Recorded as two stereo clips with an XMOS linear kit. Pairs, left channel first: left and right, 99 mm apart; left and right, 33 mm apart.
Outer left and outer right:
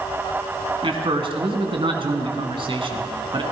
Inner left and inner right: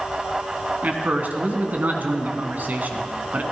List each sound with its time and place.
0.8 s a man speaking: 60° right (ahead or behind), 1.8 m